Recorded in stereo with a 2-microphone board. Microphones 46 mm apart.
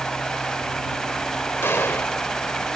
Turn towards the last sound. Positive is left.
turn(degrees=60)  # may be behind; listen again after turning